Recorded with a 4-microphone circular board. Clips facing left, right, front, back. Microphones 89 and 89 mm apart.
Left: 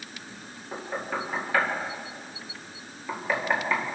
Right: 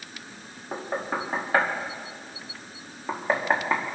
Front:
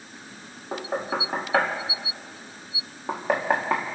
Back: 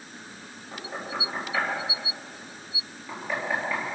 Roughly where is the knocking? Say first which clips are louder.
Right 2 dB, front 7 dB; ahead right.